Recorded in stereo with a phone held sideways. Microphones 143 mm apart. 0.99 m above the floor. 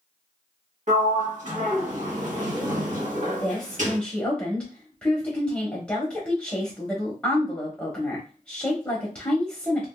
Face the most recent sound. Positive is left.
turn(degrees=10)  # may be behind; listen again after turning